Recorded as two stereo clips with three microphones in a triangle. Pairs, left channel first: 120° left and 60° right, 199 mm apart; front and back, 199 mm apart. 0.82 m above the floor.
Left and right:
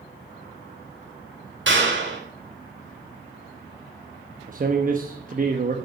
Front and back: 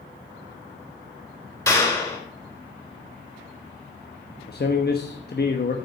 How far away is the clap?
About 3.5 m.